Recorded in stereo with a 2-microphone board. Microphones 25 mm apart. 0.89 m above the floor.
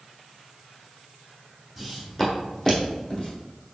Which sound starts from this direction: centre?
Footsteps, at 1.8 s.